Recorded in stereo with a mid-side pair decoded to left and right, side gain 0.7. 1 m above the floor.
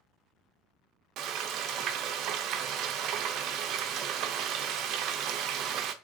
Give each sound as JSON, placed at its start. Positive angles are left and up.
{"t": 1.2, "sound": "frying", "azimuth_deg": -55, "distance_m": 0.5}